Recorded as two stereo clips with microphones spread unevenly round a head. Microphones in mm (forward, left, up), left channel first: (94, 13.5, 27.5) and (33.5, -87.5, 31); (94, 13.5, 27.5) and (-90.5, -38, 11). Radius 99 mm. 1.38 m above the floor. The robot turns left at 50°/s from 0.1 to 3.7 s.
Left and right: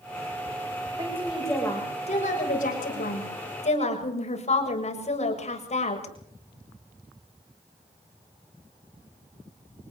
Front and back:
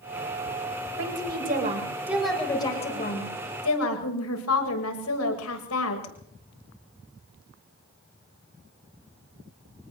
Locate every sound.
1.0 s a woman speaking: 170° left, 7 m; by 6.1 s 35° left, 7 m